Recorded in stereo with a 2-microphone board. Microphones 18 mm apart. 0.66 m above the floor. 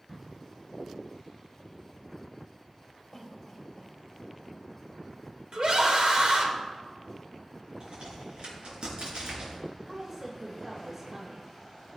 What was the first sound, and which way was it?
A cough, 10° left (ahead or behind).